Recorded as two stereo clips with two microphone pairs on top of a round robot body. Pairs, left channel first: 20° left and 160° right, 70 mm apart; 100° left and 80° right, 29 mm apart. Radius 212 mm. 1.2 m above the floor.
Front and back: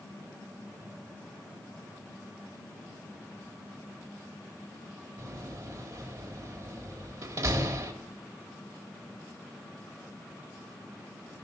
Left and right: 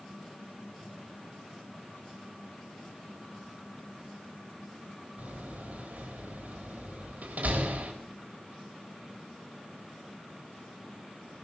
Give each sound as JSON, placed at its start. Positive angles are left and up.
{"t": 5.2, "sound": "a door slam", "azimuth_deg": -115, "distance_m": 1.3}